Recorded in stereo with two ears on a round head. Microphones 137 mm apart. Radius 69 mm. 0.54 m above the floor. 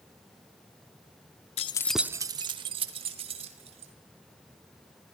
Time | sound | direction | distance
1.6 | keys jangling | 40° left (ahead or behind) | 0.5 m